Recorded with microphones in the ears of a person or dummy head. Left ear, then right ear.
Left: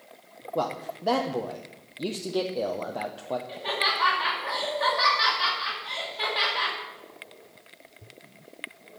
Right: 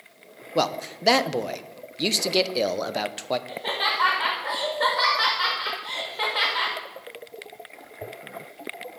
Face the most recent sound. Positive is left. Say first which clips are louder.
# left 2 dB
turn(degrees=-35)  # may be behind; listen again after turning